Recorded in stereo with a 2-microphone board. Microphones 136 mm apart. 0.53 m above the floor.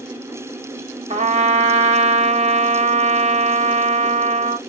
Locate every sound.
1.1 s a trumpet: 50° right (ahead or behind), 0.6 m